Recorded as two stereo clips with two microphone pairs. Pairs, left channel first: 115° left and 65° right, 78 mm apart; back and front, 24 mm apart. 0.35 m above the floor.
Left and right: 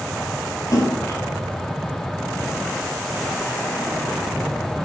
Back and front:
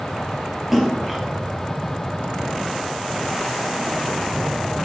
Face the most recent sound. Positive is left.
turn(degrees=80)